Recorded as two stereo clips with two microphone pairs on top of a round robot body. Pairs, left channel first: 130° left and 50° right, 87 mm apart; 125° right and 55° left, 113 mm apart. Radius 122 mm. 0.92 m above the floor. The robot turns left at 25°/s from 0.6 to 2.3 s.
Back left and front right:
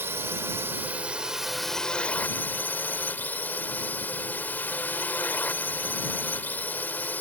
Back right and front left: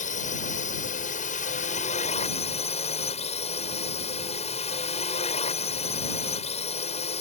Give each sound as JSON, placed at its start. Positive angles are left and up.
{"t": 0.0, "sound": "a drone", "azimuth_deg": -115}